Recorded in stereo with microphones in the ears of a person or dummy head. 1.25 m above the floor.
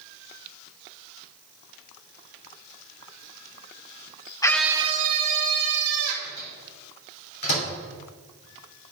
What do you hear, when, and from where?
4.4 s a scream: 15° left (ahead or behind), 0.6 m; by 6.1 s 70° right (ahead or behind), 1.7 m
6.2 s a microwave: 55° left (ahead or behind), 3 m